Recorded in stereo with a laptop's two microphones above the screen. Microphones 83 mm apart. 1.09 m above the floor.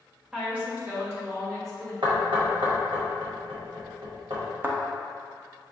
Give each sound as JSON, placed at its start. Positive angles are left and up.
{"t": 0.3, "sound": "a woman speaking", "side_deg": -10, "distance_m": 1.2}
{"t": 2.0, "sound": "knocking", "side_deg": -80, "distance_m": 1.2}
{"t": 4.6, "sound": "a thud", "side_deg": -25, "distance_m": 0.7}